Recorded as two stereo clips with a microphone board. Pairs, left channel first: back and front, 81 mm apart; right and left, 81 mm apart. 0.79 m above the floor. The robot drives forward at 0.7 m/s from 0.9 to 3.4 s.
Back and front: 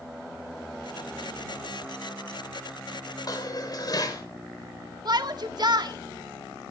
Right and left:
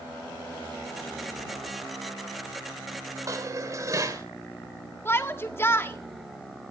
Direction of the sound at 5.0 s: 30° right.